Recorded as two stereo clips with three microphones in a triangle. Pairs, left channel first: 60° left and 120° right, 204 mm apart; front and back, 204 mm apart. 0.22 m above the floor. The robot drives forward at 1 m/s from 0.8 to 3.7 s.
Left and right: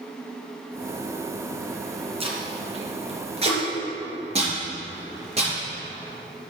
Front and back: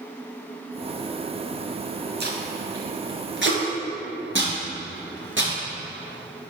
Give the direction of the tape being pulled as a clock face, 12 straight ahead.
6 o'clock.